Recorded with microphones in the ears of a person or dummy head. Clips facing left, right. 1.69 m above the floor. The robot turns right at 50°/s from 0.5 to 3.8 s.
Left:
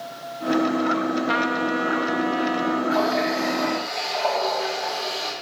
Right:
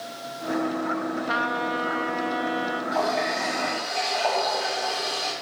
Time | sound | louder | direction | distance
1.3 | a trumpet | left 4 dB | 125° left | 0.8 m
2.9 | a running tap | left 4 dB | 160° left | 4 m